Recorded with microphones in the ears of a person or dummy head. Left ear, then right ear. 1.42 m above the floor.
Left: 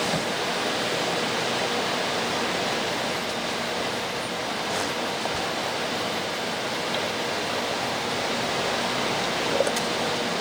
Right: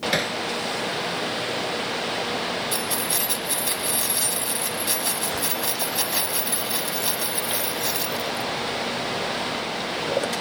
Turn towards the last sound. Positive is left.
turn(degrees=-90)